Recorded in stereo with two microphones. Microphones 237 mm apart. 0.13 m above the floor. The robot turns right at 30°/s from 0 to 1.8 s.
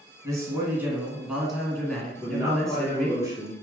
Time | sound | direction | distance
0.2 | a man speaking | 15° right (ahead or behind) | 1.2 m
2.2 | a man speaking | 15° right (ahead or behind) | 2 m